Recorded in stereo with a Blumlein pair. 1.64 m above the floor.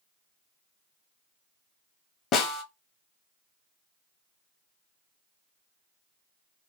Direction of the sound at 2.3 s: 30° left.